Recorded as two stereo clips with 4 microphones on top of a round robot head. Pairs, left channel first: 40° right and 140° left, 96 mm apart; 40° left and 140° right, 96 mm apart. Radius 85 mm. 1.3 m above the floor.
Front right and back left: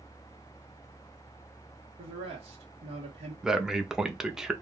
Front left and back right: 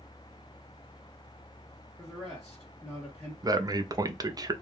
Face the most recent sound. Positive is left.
turn(degrees=-140)